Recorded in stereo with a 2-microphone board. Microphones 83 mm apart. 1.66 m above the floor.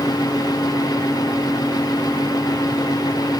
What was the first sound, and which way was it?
Only background noise.